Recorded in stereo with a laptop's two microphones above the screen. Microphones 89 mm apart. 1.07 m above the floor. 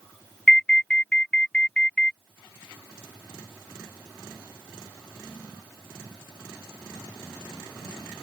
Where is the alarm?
10° left (ahead or behind).